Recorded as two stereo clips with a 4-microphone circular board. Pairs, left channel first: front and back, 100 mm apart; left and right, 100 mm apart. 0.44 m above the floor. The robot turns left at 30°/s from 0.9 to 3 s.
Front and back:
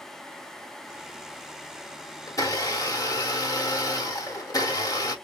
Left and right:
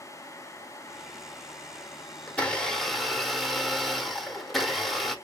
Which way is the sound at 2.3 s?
20° left.